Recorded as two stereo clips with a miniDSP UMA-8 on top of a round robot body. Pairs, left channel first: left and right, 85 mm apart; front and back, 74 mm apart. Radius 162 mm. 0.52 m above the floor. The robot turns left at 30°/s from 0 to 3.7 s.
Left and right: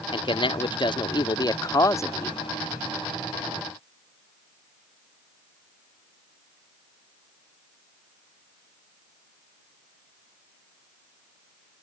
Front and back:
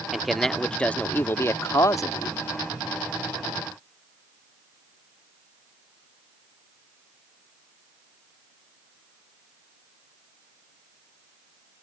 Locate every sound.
0.1 s a man speaking: 95° left; by 2.4 s 30° left